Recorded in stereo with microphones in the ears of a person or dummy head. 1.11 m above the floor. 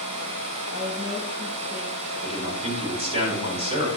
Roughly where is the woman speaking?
Right.